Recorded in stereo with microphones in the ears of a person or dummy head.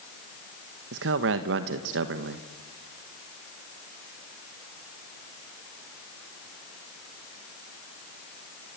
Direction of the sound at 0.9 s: 65° right (ahead or behind).